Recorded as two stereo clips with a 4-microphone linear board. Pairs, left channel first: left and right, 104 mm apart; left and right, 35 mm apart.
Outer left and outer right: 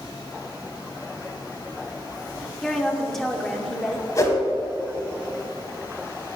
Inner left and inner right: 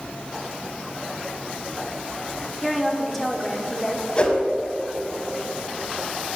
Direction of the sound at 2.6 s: Centre (ahead or behind).